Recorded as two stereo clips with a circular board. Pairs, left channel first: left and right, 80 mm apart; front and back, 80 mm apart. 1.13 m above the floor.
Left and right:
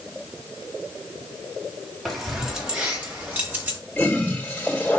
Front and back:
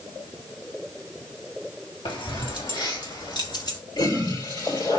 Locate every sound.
2.0 s keys jangling: straight ahead, 2.0 m; by 3.8 s 25° right, 3.5 m
4.0 s a toilet flushing: 20° left, 4 m